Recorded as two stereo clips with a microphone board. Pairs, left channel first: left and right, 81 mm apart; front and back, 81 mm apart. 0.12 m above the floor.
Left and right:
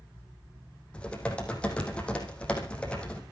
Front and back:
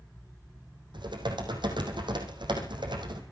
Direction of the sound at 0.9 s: 165° left.